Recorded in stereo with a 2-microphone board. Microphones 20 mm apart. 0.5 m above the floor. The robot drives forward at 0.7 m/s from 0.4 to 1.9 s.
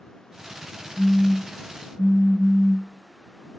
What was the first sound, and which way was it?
A phone buzzing, 55° right (ahead or behind).